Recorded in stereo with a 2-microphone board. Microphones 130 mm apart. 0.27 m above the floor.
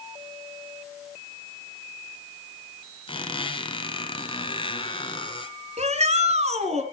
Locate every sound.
3.1 s a squeak: 45° left (ahead or behind), 1.8 m
5.8 s a shout: 55° right (ahead or behind), 3.5 m